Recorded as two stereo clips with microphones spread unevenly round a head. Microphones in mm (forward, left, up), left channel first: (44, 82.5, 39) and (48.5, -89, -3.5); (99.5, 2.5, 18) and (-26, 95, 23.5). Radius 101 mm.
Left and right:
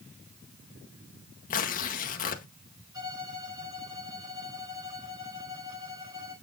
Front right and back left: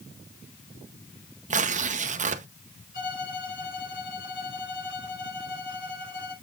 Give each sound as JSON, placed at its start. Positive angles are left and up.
{"t": 1.5, "sound": "tearing paper", "azimuth_deg": 135, "distance_m": 0.9}
{"t": 2.9, "sound": "a violin", "azimuth_deg": -20, "distance_m": 5.0}